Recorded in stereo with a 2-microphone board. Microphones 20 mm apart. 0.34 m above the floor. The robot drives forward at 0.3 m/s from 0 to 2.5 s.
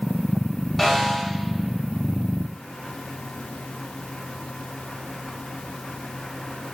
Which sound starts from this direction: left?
A snare drum, at 0.8 s.